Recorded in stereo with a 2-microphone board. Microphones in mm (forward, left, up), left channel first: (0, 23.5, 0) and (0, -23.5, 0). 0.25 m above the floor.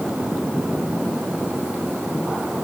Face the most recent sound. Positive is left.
No sound to turn to.